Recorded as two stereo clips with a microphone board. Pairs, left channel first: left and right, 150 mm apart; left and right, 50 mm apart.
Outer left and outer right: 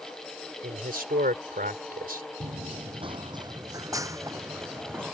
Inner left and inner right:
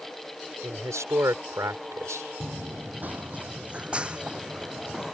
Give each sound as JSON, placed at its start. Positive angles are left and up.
{"t": 0.6, "sound": "a man speaking", "side_deg": -80}
{"t": 2.4, "sound": "running footsteps", "side_deg": -50}